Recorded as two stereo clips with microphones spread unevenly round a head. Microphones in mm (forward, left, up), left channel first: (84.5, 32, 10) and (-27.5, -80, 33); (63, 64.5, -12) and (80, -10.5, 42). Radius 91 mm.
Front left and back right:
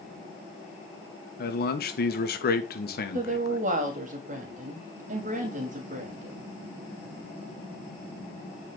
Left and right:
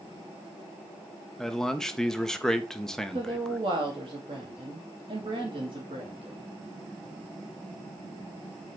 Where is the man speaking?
20° left, 1.7 m.